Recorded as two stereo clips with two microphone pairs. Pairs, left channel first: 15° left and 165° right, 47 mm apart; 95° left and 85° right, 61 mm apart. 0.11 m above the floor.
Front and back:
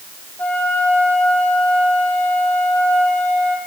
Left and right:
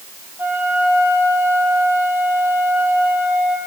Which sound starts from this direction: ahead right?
A flute, at 0.4 s.